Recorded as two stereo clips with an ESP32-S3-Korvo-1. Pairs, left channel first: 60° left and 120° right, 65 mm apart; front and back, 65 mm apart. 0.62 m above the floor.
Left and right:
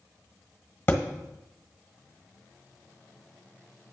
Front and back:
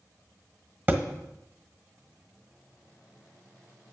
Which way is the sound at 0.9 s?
120° left.